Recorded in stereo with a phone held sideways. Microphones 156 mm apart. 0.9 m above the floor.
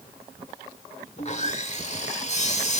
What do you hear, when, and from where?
1.2 s sawing: 50° left (ahead or behind), 1.8 m